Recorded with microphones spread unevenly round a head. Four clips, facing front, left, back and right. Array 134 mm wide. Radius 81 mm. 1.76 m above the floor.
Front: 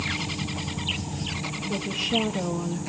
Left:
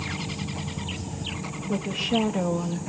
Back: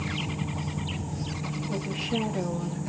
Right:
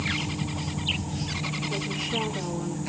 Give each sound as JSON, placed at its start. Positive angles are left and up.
{"t": 1.7, "sound": "a woman speaking", "azimuth_deg": 105, "distance_m": 3.0}